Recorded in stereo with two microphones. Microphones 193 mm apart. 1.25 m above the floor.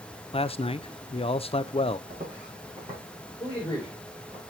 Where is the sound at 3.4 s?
15° left (ahead or behind), 4 m.